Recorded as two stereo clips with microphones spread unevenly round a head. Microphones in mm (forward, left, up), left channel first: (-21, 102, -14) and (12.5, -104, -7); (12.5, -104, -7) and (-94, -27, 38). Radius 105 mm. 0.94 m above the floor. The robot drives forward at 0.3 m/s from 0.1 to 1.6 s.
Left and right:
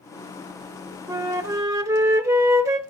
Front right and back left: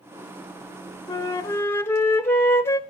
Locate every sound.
1.1 s a flute: 10° right, 0.9 m